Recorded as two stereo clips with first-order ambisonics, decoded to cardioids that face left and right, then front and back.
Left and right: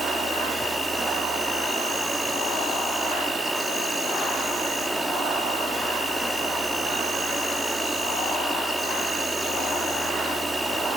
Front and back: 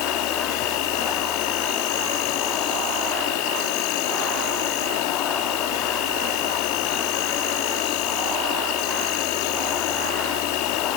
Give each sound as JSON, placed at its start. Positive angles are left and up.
{"t": 0.0, "sound": "an insect", "azimuth_deg": -5, "distance_m": 2.0}